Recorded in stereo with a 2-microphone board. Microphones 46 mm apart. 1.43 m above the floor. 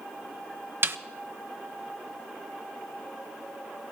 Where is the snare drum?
50° right (ahead or behind), 0.7 m.